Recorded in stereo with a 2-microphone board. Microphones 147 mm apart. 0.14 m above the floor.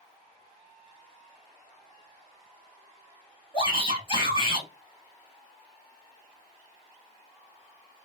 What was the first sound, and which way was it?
A shout, 35° left (ahead or behind).